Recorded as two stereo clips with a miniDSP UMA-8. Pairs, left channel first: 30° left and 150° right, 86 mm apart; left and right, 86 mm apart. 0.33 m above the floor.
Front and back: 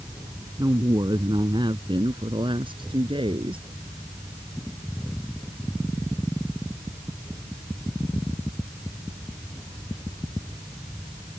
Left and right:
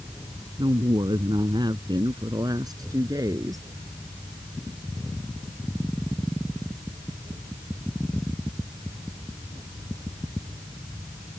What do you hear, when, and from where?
0.6 s a woman speaking: 115° right; by 3.7 s 140° right